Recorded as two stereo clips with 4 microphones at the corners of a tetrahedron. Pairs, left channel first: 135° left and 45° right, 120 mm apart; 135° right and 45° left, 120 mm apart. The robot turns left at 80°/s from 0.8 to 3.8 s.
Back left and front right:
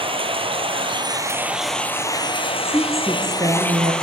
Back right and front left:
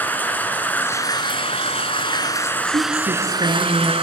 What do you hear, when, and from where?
0.0 s running water: 65° right, 1.1 m; by 4.0 s 55° left, 1.1 m
2.6 s a woman speaking: 70° left, 2 m; by 3.9 s 20° right, 2 m